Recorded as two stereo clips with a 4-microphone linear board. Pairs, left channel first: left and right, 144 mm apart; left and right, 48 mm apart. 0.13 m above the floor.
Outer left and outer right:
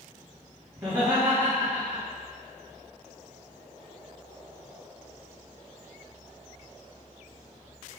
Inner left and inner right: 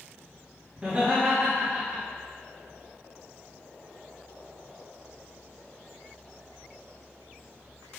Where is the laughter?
15° right (ahead or behind), 2.5 m.